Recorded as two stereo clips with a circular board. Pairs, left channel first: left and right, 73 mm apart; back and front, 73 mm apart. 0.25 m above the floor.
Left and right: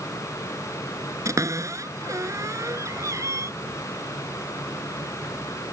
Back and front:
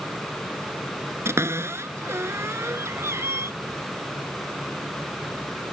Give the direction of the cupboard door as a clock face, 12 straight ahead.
2 o'clock.